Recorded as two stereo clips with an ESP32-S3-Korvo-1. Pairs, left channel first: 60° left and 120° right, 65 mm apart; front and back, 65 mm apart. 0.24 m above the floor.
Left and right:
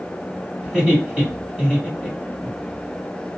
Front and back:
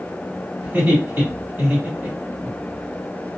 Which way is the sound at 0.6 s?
170° left.